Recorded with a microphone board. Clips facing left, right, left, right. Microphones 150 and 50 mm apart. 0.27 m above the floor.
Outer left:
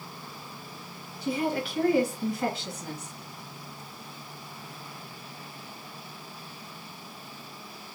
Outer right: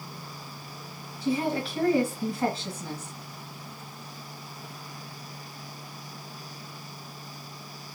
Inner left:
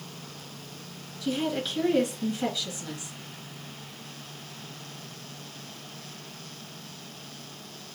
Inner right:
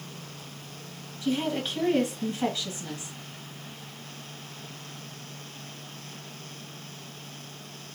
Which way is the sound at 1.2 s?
30° right (ahead or behind).